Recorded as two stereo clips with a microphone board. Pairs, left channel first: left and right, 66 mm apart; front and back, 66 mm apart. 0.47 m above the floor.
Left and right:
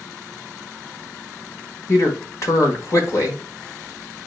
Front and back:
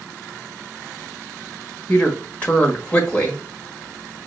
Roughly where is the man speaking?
Ahead left.